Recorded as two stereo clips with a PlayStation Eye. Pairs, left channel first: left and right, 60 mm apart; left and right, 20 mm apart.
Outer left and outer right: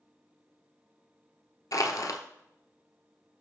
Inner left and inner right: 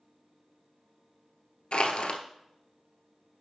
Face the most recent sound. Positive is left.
turn(degrees=65)  # may be behind; listen again after turning